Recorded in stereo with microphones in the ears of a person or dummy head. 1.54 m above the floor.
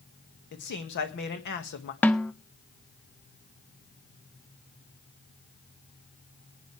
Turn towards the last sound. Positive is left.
turn(degrees=10)  # may be behind; listen again after turning